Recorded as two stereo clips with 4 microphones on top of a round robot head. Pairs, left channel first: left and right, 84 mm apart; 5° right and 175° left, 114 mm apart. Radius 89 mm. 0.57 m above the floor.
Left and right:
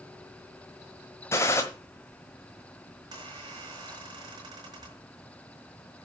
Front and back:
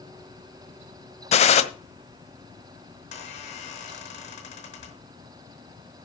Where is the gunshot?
25° left, 1.5 m.